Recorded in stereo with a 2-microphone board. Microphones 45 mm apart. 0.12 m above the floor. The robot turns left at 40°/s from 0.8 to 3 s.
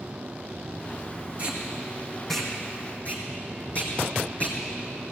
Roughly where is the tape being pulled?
Right.